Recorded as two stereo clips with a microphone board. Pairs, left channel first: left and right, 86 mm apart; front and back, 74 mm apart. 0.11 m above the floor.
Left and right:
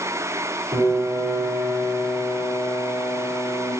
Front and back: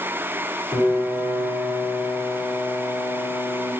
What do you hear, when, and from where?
0.7 s a piano: 35° right, 3 m